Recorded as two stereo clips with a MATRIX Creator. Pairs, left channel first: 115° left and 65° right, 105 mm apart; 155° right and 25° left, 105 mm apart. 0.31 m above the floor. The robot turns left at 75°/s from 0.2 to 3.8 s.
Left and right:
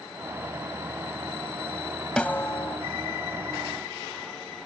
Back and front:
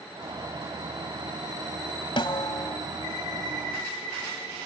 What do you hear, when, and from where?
2.2 s a snare drum: 170° right; by 2.8 s 145° left